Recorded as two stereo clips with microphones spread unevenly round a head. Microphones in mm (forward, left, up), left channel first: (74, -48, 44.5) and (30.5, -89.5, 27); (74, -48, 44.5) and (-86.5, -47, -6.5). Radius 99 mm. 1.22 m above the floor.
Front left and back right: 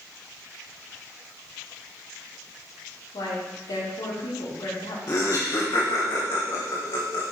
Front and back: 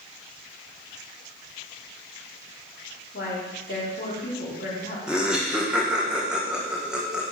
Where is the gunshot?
No gunshot in this recording.